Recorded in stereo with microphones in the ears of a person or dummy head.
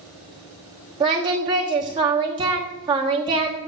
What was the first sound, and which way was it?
Singing, 25° right (ahead or behind).